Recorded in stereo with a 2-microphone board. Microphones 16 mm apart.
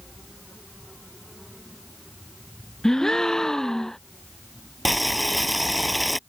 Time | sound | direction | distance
2.8 | a gasp | 35° left (ahead or behind) | ?
4.8 | boiling | centre (ahead or behind) | ?